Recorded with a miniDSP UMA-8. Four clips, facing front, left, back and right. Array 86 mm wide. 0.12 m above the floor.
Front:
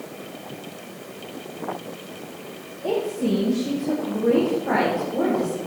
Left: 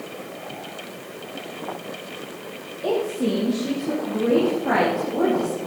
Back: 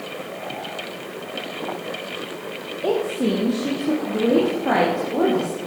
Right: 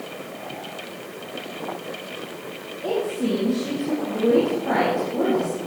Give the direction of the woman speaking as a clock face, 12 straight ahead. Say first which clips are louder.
Left 1 dB, back 2 dB; 6 o'clock.